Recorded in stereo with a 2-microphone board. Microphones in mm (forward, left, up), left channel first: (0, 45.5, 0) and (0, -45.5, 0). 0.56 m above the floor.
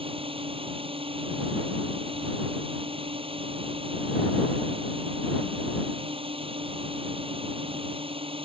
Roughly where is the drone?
Right.